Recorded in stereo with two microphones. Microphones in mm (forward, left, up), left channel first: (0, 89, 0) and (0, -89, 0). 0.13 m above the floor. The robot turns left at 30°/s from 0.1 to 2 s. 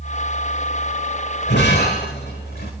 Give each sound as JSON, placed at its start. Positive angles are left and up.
{"t": 1.5, "sound": "breaking glass", "side_deg": 80, "distance_m": 4.5}